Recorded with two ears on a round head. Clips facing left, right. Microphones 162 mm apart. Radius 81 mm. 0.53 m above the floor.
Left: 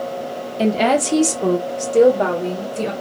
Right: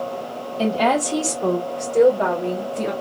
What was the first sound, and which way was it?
A woman speaking, 15° left (ahead or behind).